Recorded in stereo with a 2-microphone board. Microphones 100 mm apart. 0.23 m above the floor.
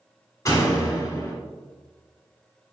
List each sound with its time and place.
0.5 s a door slam: 35° left (ahead or behind), 1.1 m